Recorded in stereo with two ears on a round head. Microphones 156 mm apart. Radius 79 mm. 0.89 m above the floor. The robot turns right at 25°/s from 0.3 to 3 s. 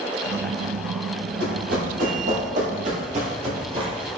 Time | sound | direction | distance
1.4 | running footsteps | 65° right (ahead or behind) | 1.9 m